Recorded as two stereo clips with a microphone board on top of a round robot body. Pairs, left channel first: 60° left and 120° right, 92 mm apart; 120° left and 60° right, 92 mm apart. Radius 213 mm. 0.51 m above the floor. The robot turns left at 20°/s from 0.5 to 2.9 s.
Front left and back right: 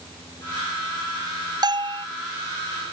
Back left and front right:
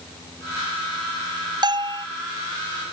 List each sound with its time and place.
1.6 s a bell: 85° right; by 2.1 s 95° right